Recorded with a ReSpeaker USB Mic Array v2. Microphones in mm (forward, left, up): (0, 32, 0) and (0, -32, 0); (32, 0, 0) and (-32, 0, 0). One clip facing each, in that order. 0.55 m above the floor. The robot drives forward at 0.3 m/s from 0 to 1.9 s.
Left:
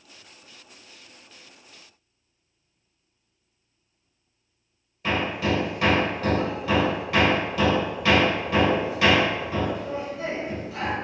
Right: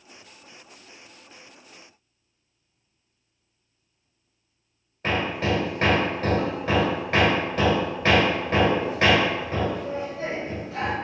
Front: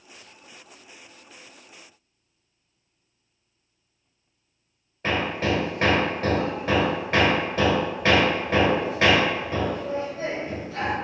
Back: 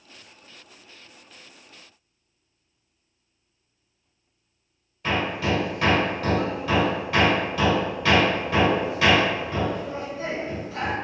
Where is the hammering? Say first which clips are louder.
Even, even; 50° right, 2.0 m.